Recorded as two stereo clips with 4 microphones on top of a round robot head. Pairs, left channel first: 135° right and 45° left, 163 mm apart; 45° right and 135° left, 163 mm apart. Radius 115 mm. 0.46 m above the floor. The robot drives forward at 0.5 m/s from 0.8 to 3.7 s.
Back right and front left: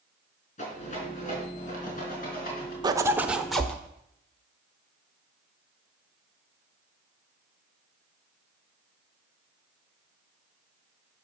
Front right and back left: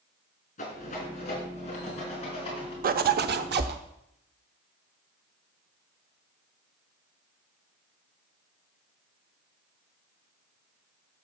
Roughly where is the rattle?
Right.